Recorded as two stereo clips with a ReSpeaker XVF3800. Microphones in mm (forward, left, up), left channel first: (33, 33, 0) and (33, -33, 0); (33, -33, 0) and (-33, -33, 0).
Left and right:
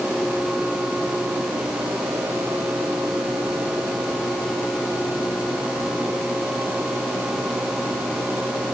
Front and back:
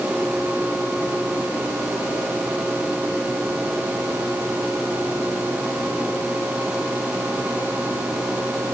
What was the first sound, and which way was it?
Only background noise.